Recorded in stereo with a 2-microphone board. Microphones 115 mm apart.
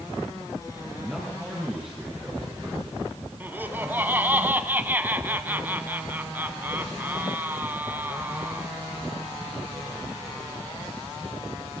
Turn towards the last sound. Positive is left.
turn(degrees=-15)  # may be behind; listen again after turning